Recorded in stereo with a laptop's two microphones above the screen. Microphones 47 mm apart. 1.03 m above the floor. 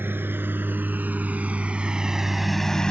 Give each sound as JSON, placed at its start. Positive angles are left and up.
{"t": 0.0, "sound": "a lawn mower", "side_deg": -50}